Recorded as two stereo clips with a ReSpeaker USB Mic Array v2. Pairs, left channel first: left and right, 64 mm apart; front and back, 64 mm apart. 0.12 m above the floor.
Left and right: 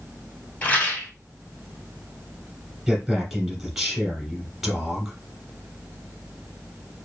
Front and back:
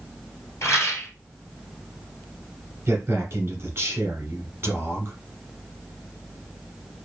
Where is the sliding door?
No sliding door in this recording.